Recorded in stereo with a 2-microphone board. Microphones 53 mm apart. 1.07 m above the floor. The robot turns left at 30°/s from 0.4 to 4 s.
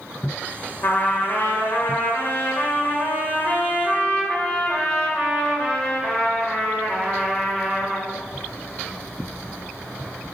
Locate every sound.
0.8 s a trumpet: 120° left, 1.4 m; by 8.1 s 25° left, 1.4 m